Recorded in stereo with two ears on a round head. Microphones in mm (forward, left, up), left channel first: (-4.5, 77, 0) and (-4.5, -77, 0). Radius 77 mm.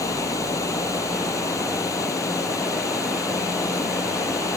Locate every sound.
0.0 s running water: 20° left (ahead or behind)